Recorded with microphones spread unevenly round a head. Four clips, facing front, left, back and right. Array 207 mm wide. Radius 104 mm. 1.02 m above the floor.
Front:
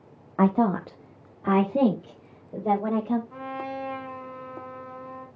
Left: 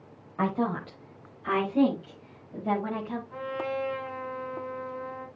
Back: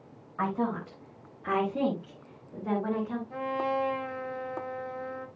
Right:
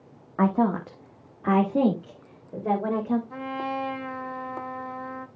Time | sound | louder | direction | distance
0.4 | a woman speaking | right 5 dB, front 8 dB | 25° right | 1.2 m
3.3 | a trumpet | right 1 dB, back 4 dB | 150° right | 6 m